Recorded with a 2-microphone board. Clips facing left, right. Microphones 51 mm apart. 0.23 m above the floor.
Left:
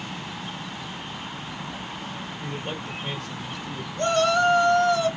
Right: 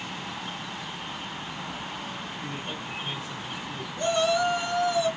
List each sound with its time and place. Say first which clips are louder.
2.4 s a man speaking: left 5 dB; 70° left (ahead or behind), 3 m
4.0 s a shout: left 3 dB; 65° left (ahead or behind), 3.5 m